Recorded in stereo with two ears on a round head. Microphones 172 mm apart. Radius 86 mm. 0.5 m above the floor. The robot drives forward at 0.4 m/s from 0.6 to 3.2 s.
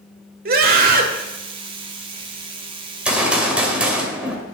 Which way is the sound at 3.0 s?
5° right (ahead or behind).